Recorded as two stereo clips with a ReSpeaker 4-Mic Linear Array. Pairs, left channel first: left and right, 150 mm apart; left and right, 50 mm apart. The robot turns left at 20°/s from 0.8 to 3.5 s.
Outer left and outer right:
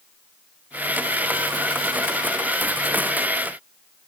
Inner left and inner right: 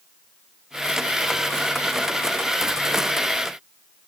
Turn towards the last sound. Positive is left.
No sound to turn to.